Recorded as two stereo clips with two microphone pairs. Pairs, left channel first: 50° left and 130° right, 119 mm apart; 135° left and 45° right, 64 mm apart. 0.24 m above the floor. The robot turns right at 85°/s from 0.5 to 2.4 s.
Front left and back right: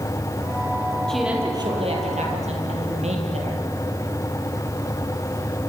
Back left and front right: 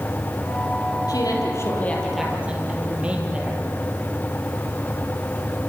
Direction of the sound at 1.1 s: 135° left.